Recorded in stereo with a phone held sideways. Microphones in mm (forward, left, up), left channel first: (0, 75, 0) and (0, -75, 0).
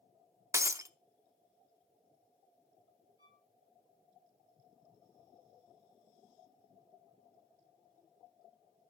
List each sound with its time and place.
0.5 s breaking glass: 20° right (ahead or behind), 0.7 m
3.2 s a violin: 25° right (ahead or behind), 4 m